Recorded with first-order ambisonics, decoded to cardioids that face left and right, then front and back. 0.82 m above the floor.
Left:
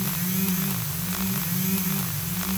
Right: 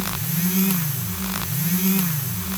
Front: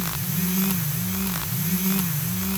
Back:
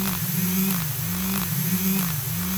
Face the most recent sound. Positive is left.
No sound to turn to.